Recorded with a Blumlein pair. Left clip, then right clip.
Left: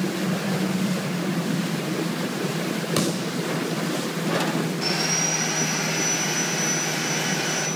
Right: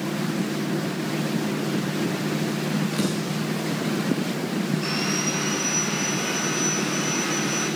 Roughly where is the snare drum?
Ahead left.